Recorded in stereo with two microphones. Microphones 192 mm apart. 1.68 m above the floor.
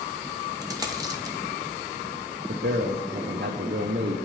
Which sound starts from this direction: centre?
A dropped coin, at 0.6 s.